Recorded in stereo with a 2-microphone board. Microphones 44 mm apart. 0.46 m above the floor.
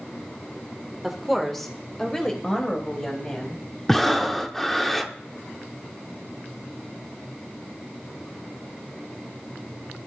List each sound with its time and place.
1.0 s a woman speaking: 5° right (ahead or behind), 1.2 m; by 3.6 s 25° left (ahead or behind), 3 m
3.9 s breathing: 5° left (ahead or behind), 0.7 m